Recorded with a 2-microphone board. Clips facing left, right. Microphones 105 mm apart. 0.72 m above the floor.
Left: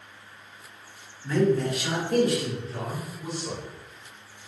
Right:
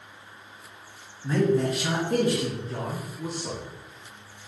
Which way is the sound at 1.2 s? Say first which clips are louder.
Even; 25° right (ahead or behind).